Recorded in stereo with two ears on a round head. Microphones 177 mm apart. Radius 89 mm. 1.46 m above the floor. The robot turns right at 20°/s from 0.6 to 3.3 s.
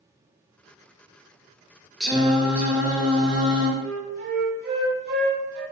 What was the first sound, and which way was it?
Singing, centre (ahead or behind).